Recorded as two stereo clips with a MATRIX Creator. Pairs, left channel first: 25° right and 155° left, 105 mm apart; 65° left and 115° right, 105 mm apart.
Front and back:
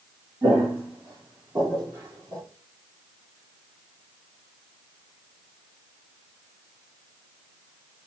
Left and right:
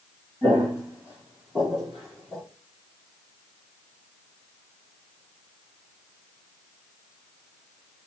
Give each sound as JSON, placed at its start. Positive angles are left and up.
{"t": 0.4, "sound": "footsteps", "azimuth_deg": -160, "distance_m": 2.0}